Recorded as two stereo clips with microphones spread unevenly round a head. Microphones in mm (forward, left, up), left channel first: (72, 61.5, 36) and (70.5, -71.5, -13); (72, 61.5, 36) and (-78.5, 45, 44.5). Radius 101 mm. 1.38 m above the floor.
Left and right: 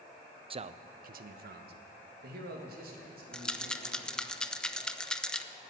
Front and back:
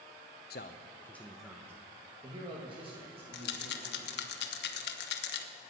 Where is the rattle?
5° left, 0.8 m.